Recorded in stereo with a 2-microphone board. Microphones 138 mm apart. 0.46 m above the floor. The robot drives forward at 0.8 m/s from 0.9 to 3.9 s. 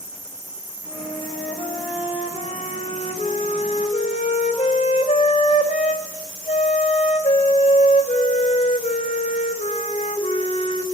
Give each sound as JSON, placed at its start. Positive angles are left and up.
{"t": 0.8, "sound": "a flute", "side_deg": 40, "distance_m": 3.0}